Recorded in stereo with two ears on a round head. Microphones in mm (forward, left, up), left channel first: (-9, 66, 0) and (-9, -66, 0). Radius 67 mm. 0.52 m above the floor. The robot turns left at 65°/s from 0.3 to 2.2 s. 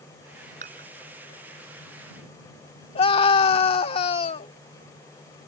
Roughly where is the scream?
Left.